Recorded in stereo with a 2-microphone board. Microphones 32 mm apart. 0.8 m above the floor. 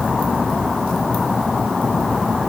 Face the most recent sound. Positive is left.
No sound to turn to.